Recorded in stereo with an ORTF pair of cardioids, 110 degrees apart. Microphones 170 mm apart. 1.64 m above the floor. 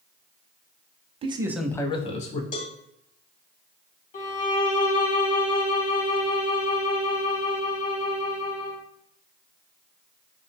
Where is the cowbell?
55° left, 0.8 m.